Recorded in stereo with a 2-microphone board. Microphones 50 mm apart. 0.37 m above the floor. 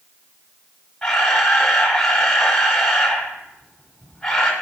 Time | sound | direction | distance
1.0 | a camera shutter | 15° left (ahead or behind) | 1.4 m